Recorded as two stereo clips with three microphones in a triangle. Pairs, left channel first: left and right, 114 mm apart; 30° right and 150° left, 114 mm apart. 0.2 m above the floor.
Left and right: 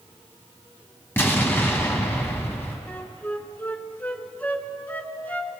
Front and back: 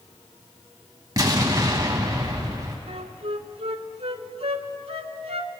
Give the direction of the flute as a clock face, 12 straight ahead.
7 o'clock.